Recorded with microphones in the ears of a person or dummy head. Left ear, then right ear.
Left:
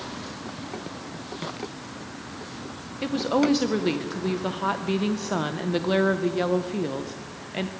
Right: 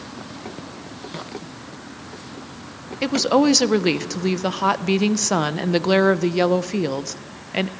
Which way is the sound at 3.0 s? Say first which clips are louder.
Right 6 dB; 75° right (ahead or behind).